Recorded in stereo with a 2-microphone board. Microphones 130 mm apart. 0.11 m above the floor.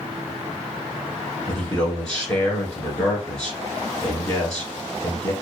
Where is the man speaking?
5° left (ahead or behind), 1.3 m.